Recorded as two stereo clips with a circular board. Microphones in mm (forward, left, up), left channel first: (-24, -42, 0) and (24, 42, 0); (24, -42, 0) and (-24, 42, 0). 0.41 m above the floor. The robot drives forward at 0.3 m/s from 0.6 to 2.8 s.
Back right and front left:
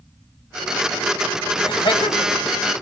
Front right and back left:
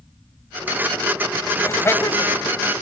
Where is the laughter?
115° right, 2.5 m; by 2.4 s 120° right, 2.5 m.